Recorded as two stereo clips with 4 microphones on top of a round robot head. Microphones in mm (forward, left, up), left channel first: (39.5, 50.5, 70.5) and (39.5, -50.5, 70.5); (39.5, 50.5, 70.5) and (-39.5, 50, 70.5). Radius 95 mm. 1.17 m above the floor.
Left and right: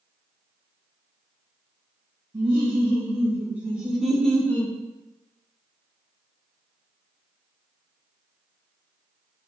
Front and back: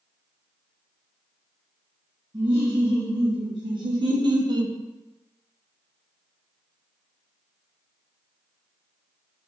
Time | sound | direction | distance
2.3 | laughter | 150° right | 1.4 m